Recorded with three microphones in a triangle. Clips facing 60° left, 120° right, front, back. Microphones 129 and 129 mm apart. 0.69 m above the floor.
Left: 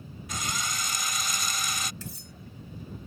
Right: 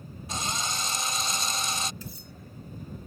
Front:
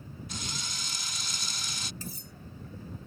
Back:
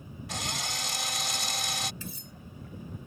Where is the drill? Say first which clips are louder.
Right 2 dB, back 7 dB; straight behind.